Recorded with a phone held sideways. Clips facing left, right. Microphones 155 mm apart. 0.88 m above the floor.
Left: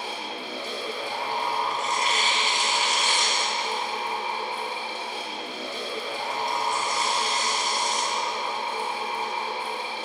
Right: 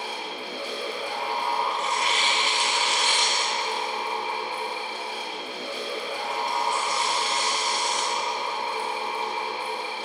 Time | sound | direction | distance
0.0 | a fan | 10° right (ahead or behind) | 1.5 m
1.7 | tearing paper | 40° left (ahead or behind) | 1.1 m